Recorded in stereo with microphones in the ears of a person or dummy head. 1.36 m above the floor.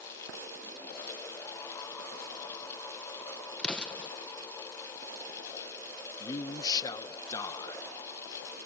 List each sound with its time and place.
3.6 s an explosion: 5° left (ahead or behind)
6.2 s a man speaking: 20° left (ahead or behind)